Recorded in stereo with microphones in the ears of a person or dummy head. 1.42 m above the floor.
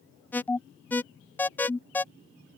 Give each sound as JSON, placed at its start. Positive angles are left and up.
{"t": 0.3, "sound": "an alarm", "side_deg": 10}